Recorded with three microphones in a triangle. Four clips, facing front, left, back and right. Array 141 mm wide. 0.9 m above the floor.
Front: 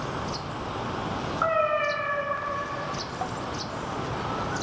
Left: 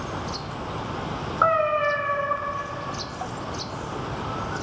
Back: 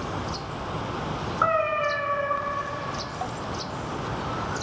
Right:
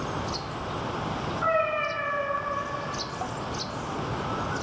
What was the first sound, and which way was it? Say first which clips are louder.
A cat meowing: left 5 dB, back 1 dB; 100° left.